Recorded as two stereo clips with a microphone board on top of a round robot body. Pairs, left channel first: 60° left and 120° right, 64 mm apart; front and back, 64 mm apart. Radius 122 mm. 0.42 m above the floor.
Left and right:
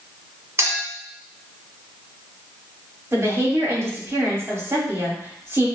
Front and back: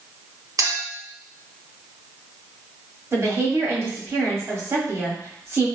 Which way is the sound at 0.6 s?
165° right.